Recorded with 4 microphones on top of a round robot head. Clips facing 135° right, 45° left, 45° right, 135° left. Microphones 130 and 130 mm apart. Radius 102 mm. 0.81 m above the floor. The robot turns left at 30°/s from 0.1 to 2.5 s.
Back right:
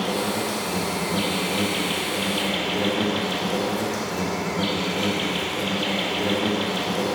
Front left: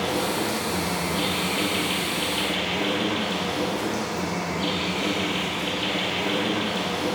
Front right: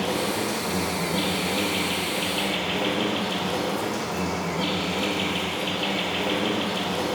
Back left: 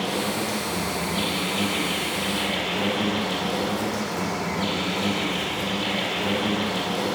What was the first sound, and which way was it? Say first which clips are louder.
An insect: even, front right 1 dB; 45° right.